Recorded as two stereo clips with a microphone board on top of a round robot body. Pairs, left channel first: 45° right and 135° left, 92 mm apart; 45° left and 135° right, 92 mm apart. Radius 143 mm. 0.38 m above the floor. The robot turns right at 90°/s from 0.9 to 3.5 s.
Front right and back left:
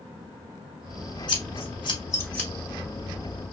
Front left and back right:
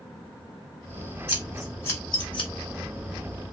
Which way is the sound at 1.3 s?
70° right.